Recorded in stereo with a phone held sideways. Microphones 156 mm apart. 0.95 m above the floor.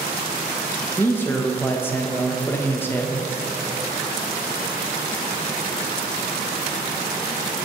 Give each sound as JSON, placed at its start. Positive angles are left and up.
{"t": 1.0, "sound": "a man speaking", "side_deg": 15, "distance_m": 0.6}